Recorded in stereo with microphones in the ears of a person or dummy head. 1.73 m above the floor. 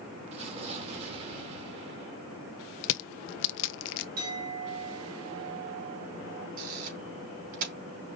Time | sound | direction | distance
0.3 | an explosion | 40° right (ahead or behind) | 2 m
2.8 | crushing | 70° left (ahead or behind) | 0.6 m
4.2 | a clink | 50° right (ahead or behind) | 3.5 m
6.6 | a camera shutter | 50° right (ahead or behind) | 3 m